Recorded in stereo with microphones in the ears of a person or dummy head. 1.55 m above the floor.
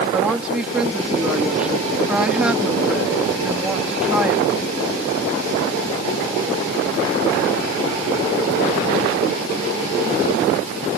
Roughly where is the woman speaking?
Centre.